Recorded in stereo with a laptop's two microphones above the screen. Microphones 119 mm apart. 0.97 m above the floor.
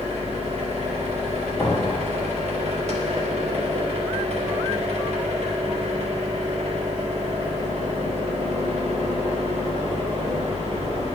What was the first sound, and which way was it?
A machine running, 65° right (ahead or behind).